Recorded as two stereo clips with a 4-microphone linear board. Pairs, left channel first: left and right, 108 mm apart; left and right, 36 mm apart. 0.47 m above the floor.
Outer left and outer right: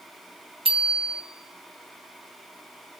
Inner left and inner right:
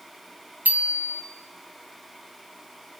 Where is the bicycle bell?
60° right (ahead or behind), 2.5 m.